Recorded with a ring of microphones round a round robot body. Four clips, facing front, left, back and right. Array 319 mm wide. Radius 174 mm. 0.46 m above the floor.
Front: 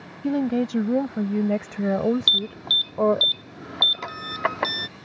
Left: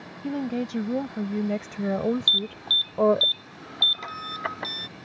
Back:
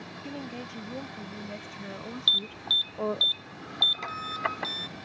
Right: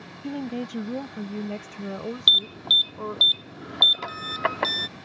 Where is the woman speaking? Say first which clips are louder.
Left 3 dB, front 17 dB; 5° left; by 3.3 s 45° left.